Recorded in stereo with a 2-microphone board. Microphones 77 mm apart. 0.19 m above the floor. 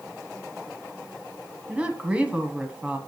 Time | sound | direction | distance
1.7 | a woman speaking | 15° right (ahead or behind) | 1.3 m